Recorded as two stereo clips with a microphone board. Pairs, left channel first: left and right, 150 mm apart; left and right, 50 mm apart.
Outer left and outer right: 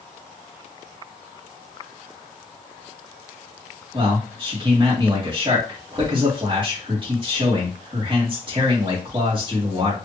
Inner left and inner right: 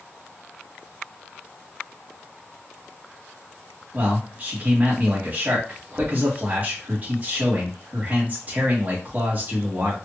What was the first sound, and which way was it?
A man speaking, 35° right (ahead or behind).